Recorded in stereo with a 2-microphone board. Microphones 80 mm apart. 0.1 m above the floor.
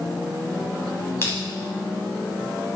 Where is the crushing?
30° left (ahead or behind), 5.5 m.